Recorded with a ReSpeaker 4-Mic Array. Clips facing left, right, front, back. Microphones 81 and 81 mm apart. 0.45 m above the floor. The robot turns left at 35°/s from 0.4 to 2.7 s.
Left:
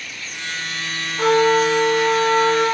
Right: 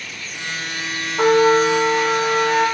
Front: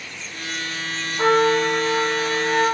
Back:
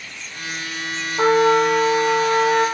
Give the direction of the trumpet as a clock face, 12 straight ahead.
5 o'clock.